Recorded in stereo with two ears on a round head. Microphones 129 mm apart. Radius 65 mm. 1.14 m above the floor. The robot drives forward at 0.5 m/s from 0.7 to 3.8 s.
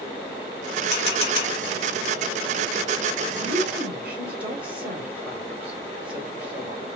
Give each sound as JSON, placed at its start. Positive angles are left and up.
{"t": 0.9, "sound": "a camera shutter", "side_deg": 45, "distance_m": 2.0}
{"t": 3.4, "sound": "a woman speaking", "side_deg": -10, "distance_m": 1.9}